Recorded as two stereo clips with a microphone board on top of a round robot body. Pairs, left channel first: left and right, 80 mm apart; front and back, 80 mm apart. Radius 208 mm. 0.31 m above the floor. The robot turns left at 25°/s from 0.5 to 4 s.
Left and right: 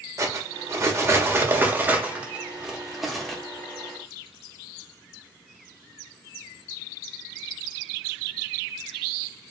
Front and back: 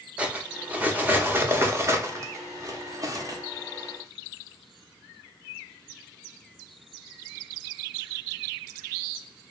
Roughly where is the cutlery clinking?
Behind right.